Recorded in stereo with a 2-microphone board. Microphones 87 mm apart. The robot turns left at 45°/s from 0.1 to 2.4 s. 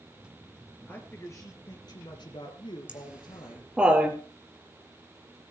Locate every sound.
0.9 s a man speaking: 160° left, 2.5 m; by 3.7 s 95° left, 2.5 m
2.9 s laughter: 10° right (ahead or behind), 3 m